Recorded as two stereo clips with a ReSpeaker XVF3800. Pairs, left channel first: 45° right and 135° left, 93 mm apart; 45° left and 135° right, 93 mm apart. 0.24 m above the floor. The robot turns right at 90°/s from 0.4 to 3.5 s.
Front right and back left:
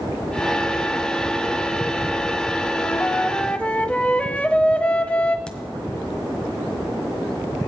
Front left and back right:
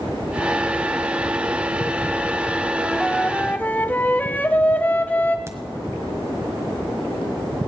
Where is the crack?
115° right, 1.5 m.